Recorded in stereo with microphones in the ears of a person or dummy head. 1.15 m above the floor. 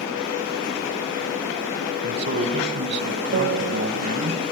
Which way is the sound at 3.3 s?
50° right (ahead or behind).